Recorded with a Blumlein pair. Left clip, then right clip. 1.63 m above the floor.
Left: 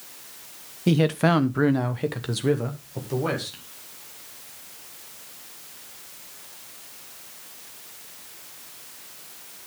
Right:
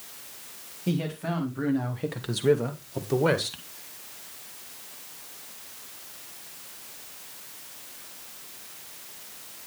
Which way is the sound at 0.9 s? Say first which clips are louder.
Left 10 dB; 65° left.